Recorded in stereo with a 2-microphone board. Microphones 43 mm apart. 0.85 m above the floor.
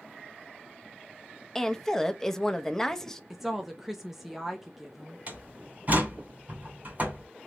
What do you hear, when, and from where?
1.6 s a woman speaking: 10° left (ahead or behind), 0.6 m
3.3 s a woman speaking: 5° right (ahead or behind), 0.6 m
5.3 s a door slam: 40° right (ahead or behind), 2.5 m